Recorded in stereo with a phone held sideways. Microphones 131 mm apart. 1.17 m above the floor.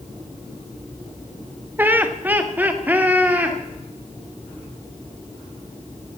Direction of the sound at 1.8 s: 15° right (ahead or behind).